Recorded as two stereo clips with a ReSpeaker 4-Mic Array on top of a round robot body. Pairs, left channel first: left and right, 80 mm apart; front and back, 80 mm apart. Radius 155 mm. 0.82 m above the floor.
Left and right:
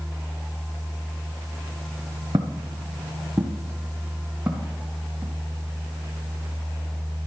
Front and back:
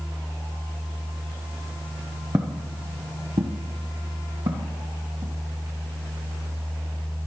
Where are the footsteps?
125° right, 0.8 m; by 5.3 s 170° right, 3.5 m.